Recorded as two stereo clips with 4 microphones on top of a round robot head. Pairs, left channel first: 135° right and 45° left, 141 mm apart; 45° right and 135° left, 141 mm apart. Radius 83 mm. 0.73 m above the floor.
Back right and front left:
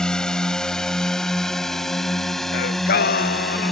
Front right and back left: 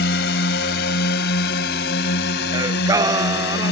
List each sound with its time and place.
0.0 s a drone: 50° right; by 3.7 s 45° right
2.5 s singing: 155° right